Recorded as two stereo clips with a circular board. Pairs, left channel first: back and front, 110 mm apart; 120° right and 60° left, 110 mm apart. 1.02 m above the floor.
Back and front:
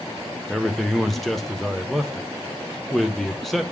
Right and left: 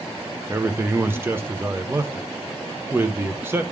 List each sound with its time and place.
0.5 s a man speaking: 95° left, 0.6 m